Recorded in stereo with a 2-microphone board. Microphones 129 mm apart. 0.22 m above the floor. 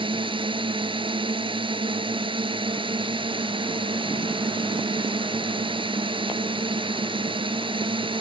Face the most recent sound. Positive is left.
turn(degrees=-40)  # may be behind; listen again after turning